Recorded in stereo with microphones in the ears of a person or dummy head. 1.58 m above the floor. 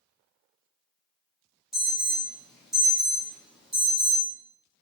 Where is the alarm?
5° right (ahead or behind), 0.7 m.